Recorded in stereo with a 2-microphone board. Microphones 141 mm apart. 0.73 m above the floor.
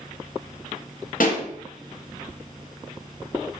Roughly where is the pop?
Left.